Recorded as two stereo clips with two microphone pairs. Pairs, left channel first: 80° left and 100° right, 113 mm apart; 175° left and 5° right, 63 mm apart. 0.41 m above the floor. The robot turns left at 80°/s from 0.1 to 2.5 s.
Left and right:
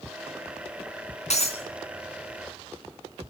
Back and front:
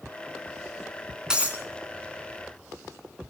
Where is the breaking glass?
75° left, 2.5 m; by 1.6 s 50° left, 2.5 m.